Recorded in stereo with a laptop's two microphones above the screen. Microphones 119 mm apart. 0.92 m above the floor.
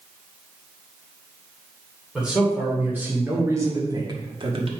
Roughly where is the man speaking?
Centre.